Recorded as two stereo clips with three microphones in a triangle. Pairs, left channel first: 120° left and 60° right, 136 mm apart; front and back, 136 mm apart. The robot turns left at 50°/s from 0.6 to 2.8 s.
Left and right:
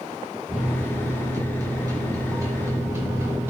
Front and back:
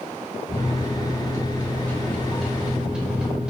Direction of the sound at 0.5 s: 5° left.